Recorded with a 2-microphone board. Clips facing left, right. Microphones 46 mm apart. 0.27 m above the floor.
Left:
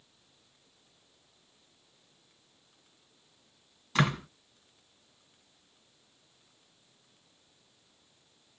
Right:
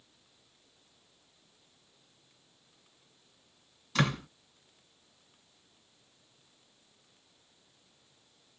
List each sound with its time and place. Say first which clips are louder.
4.0 s a door slam: left 2 dB; 20° left (ahead or behind), 1.7 m